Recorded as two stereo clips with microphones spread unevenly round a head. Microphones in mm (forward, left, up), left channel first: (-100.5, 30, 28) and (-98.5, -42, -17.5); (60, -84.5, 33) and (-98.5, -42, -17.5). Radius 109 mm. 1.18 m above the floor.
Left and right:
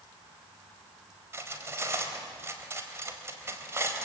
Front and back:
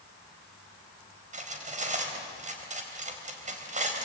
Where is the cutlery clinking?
150° right, 4 m.